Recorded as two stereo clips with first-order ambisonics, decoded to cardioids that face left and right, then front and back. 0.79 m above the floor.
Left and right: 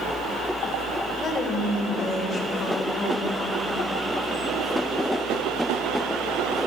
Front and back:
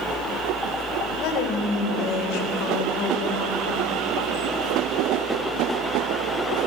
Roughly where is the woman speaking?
Ahead left.